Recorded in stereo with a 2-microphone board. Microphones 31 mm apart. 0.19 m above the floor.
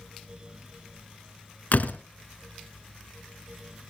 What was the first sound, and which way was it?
A door slam, 55° left (ahead or behind).